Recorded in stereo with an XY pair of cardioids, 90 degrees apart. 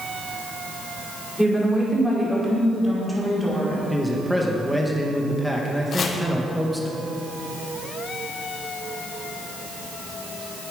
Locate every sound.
1.4 s a woman speaking: 10° right, 5 m
3.9 s a man speaking: 5° right, 2 m
5.9 s chopping: 55° left, 1.4 m